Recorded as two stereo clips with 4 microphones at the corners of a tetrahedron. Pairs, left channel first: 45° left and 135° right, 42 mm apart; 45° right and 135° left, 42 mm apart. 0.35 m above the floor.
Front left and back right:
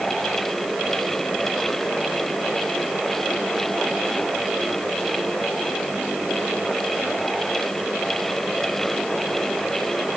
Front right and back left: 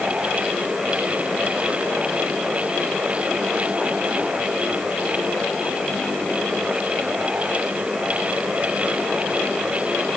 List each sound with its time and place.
Only background noise.